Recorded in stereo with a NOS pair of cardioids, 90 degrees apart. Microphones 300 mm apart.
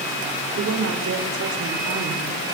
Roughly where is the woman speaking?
Ahead right.